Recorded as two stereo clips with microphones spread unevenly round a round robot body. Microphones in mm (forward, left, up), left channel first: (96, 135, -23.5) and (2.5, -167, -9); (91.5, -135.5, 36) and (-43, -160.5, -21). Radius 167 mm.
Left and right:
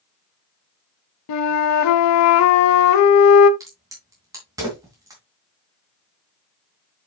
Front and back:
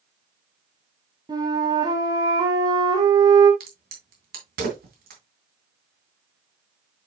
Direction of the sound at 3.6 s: 170° left.